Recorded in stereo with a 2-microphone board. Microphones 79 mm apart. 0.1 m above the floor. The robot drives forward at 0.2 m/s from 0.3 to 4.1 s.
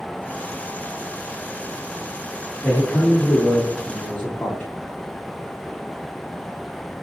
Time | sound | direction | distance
2.6 | a man speaking | 20° left (ahead or behind) | 1.4 m